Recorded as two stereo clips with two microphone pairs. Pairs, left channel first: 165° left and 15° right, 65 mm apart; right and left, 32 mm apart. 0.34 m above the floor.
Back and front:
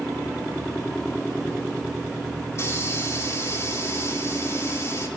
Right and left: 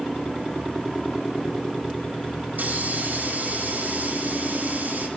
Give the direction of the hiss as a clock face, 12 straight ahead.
8 o'clock.